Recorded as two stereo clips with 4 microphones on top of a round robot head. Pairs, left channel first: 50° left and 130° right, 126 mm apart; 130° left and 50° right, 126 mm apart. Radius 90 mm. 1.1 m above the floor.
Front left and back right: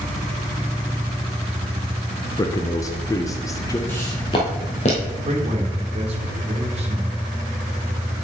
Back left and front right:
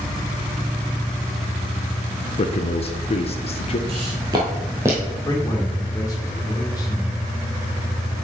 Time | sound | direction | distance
2.4 | a man speaking | 110° left | 0.7 m
3.9 | footsteps | 20° right | 1.3 m
5.2 | a man speaking | 170° right | 1.3 m